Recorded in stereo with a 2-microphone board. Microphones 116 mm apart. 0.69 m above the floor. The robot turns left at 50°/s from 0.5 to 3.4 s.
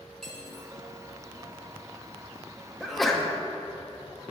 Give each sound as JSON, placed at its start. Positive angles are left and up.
{"t": 0.2, "sound": "cutlery clinking", "side_deg": 5, "distance_m": 1.4}
{"t": 2.8, "sound": "a sneeze", "side_deg": -5, "distance_m": 0.7}